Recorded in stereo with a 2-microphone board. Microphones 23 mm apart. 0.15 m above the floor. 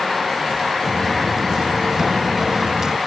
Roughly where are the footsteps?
Centre.